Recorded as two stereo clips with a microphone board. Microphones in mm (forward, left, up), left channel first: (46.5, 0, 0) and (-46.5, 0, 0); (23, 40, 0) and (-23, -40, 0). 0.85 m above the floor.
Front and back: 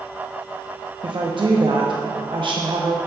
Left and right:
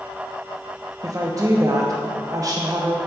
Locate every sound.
1.0 s a woman speaking: 165° right, 0.9 m